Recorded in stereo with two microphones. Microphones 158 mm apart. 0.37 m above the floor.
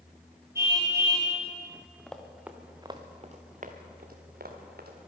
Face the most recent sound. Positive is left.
turn(degrees=-80)